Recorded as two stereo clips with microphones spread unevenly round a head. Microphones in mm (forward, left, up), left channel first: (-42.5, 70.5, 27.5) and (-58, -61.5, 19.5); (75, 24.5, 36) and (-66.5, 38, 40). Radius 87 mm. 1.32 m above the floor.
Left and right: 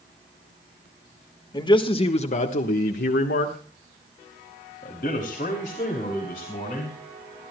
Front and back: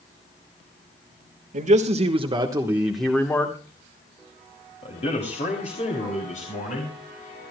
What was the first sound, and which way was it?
A man speaking, 145° left.